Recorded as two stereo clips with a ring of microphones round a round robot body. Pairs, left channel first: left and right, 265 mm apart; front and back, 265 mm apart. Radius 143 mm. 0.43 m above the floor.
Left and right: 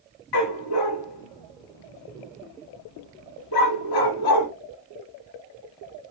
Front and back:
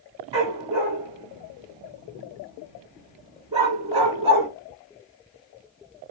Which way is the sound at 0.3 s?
110° left.